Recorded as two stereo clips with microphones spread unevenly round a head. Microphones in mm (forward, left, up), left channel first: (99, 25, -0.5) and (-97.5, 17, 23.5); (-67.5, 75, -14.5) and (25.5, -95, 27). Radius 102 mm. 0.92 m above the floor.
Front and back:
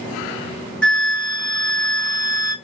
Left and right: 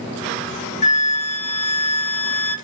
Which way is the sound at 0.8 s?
80° left.